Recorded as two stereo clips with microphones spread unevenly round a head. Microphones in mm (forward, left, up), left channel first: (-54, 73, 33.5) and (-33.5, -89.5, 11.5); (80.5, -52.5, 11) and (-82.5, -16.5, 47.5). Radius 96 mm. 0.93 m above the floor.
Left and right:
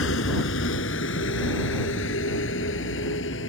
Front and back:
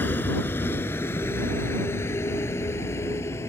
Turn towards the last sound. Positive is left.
turn(degrees=65)